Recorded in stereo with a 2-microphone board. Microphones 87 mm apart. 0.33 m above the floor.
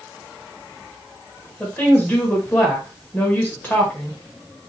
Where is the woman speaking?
20° left (ahead or behind), 1.0 m.